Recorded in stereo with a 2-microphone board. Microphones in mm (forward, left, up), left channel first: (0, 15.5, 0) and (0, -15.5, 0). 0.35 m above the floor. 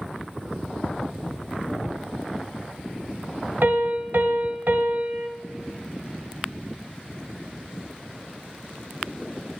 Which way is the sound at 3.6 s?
65° right (ahead or behind).